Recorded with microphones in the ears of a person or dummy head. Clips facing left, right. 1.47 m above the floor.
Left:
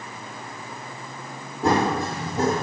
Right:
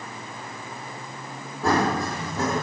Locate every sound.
1.6 s running footsteps: 25° left (ahead or behind), 3 m; by 2.6 s 35° left (ahead or behind), 3.5 m